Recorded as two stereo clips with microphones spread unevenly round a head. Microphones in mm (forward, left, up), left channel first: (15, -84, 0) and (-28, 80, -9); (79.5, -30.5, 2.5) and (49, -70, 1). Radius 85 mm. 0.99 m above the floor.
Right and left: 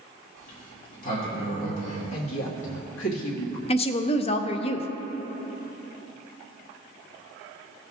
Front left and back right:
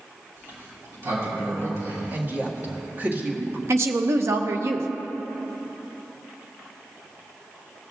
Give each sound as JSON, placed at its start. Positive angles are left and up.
{"t": 0.4, "sound": "a sliding door", "azimuth_deg": -115, "distance_m": 3.0}
{"t": 2.1, "sound": "a woman speaking", "azimuth_deg": -80, "distance_m": 1.8}
{"t": 3.7, "sound": "a woman speaking", "azimuth_deg": -130, "distance_m": 0.5}